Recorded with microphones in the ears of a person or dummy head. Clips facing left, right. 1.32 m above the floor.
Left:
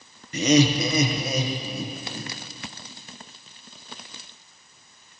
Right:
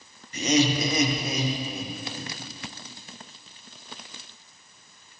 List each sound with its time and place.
0.3 s laughter: 55° left (ahead or behind), 0.9 m; by 2.3 s 75° left (ahead or behind), 1.9 m